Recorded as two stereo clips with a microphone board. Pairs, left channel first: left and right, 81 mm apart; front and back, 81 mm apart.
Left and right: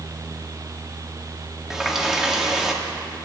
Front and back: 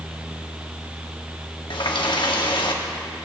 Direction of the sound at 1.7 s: 5° right.